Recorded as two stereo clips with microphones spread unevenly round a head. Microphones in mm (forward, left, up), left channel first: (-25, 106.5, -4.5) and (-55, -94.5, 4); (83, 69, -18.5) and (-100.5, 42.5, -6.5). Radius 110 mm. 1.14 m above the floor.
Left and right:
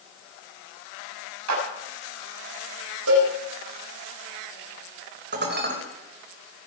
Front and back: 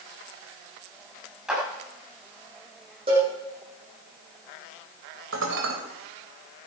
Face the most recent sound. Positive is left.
turn(degrees=-135)